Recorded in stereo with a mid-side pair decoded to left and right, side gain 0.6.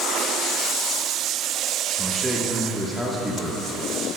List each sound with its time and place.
2.0 s a man speaking: 5° right, 1.5 m